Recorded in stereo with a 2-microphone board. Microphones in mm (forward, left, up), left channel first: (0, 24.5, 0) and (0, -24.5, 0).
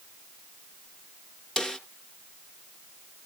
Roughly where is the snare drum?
Centre.